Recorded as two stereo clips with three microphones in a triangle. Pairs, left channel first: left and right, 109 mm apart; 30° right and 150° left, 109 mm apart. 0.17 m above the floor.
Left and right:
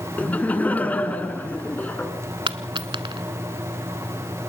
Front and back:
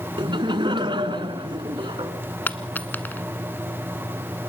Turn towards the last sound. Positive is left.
turn(degrees=-100)